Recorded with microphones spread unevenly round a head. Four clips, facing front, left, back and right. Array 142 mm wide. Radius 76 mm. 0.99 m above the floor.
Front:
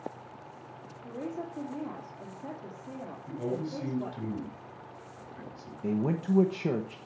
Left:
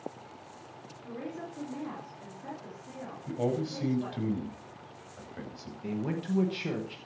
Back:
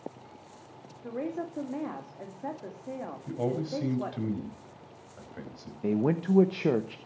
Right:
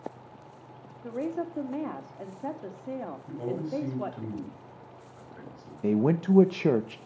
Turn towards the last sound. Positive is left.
turn(degrees=-105)